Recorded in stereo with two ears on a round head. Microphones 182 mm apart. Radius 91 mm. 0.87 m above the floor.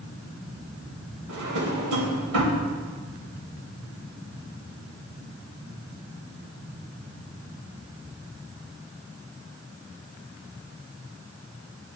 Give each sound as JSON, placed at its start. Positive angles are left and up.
{"t": 1.3, "sound": "a drawer", "side_deg": -85, "distance_m": 2.0}